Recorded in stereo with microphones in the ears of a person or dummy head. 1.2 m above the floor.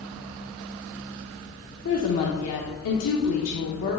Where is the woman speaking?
75° left (ahead or behind), 1.2 m.